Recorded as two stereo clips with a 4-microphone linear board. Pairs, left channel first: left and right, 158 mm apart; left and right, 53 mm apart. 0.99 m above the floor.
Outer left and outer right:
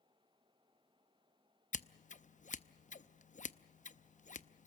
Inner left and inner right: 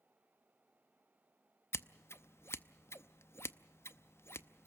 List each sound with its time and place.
1.7 s scissors: 50° left (ahead or behind), 0.6 m